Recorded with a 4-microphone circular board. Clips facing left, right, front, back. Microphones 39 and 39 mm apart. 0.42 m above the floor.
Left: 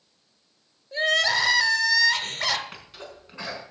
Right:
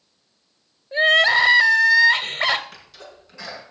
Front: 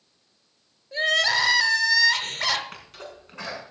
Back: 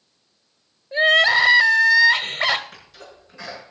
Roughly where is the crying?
Behind right.